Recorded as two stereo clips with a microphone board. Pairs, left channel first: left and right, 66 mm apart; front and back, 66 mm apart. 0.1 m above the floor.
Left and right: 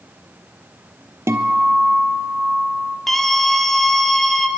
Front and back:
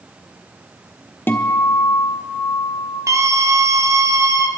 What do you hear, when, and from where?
1.3 s a guitar: 50° right, 1.5 m
3.1 s a scream: 175° left, 2.0 m